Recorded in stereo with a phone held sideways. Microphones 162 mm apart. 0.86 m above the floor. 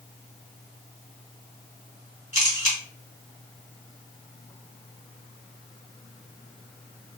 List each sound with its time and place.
2.3 s a camera shutter: 50° left (ahead or behind), 1.2 m